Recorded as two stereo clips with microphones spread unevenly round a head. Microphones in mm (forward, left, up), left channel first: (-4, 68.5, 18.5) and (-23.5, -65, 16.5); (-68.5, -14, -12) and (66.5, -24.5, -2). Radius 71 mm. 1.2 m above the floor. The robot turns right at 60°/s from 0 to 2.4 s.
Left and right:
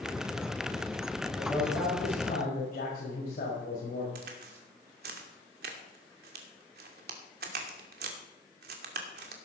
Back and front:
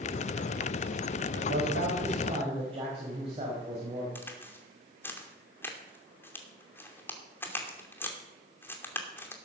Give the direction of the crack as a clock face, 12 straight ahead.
4 o'clock.